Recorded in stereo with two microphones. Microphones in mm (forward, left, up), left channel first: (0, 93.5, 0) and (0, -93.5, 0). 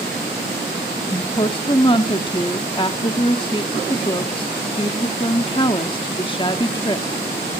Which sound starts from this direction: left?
A woman speaking, at 1.1 s.